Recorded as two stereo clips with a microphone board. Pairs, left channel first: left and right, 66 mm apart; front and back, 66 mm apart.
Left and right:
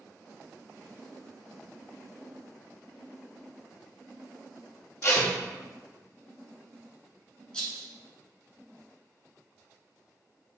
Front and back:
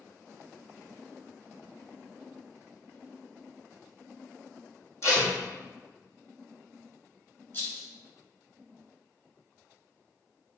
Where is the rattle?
25° left, 1.5 m.